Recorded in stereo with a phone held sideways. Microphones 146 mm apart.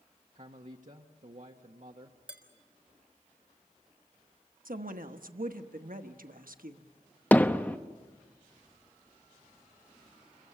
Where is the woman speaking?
70° right (ahead or behind), 1.2 m.